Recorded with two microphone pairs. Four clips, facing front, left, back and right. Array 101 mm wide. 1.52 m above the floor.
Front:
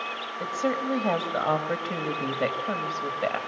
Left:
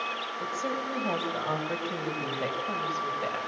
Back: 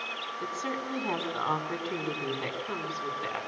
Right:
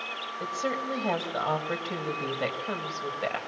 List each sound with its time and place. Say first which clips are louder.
0.4 s a woman speaking: right 2 dB, front 8 dB; 10° right, 3 m